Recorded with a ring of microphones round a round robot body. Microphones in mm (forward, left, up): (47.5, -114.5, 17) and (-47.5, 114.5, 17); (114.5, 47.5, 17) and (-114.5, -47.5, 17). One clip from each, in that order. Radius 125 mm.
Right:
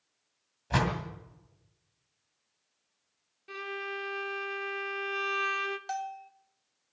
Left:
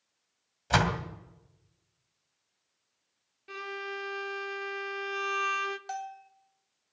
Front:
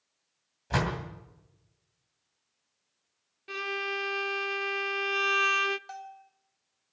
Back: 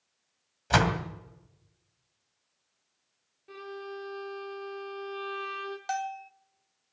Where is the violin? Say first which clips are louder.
Even, front 9 dB; 30° left, 0.6 m.